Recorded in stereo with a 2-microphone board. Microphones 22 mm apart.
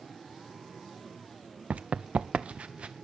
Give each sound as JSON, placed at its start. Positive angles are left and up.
{"t": 1.7, "sound": "running footsteps", "side_deg": -85, "distance_m": 0.7}